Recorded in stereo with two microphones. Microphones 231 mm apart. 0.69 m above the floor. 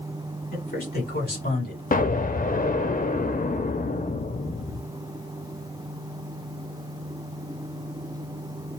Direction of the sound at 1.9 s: 40° left (ahead or behind).